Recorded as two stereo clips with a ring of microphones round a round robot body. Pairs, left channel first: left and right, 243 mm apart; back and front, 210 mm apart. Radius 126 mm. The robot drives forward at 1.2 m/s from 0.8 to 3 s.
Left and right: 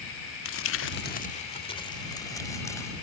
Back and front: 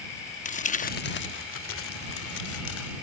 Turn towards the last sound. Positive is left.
turn(degrees=170)